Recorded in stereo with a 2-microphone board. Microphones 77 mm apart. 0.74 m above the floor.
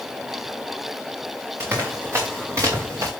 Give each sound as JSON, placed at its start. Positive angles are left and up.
{"t": 1.6, "sound": "running footsteps", "side_deg": -35, "distance_m": 4.0}